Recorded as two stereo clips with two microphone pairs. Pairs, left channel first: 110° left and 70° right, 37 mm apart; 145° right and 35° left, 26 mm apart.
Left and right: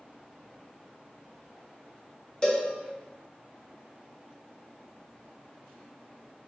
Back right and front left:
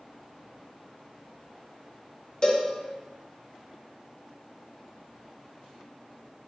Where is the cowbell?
170° left, 0.9 m.